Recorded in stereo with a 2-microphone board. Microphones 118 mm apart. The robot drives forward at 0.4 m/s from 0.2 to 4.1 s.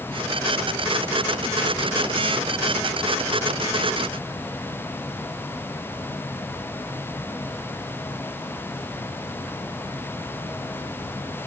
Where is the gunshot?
I don't hear a gunshot.